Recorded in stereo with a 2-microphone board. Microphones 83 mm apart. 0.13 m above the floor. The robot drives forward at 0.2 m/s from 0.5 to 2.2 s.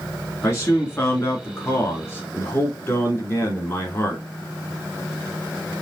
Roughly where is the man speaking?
Left.